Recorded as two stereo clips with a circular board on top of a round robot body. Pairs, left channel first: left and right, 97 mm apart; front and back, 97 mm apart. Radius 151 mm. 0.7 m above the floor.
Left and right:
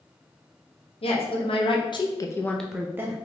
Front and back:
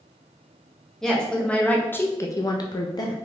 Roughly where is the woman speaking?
Left.